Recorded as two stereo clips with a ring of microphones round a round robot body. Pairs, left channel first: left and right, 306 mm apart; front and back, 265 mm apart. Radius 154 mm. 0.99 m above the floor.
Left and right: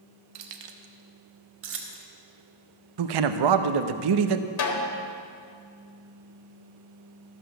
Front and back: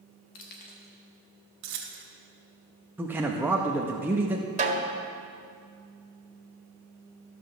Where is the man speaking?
95° right, 0.7 m.